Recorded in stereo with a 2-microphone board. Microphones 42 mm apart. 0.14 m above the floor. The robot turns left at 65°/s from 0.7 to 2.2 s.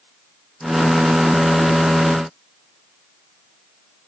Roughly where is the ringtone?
No ringtone in this recording.